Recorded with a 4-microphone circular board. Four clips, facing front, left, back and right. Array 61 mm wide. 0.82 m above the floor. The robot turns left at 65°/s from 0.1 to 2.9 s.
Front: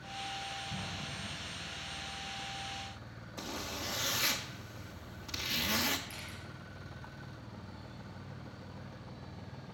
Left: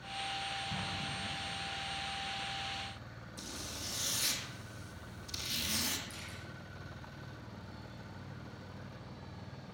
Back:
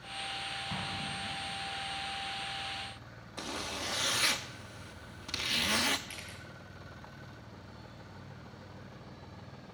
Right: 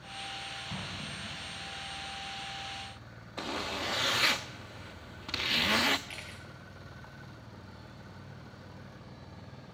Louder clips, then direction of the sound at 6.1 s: Right 3 dB, even; 105° right.